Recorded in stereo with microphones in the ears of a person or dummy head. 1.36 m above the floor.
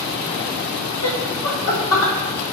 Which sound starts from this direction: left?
Laughter, at 1.0 s.